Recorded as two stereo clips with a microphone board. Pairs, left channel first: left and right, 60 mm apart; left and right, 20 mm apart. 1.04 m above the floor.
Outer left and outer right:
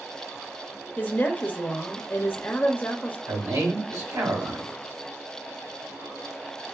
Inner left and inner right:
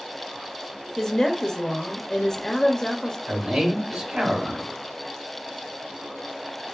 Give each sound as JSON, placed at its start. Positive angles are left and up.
{"t": 1.0, "sound": "a woman speaking", "side_deg": 30, "distance_m": 0.9}
{"t": 3.3, "sound": "a man speaking", "side_deg": -65, "distance_m": 2.0}